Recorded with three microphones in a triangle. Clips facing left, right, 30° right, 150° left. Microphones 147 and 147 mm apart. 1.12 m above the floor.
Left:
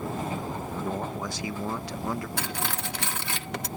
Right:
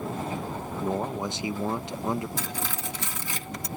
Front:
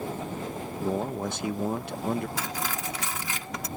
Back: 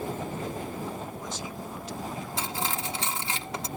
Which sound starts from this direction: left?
Cutlery clinking, at 2.4 s.